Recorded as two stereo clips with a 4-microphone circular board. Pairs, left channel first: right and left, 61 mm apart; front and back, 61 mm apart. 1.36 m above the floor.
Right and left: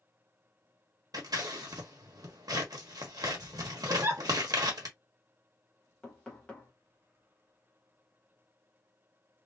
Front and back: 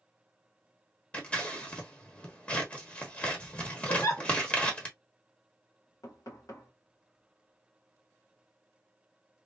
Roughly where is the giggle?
Ahead left.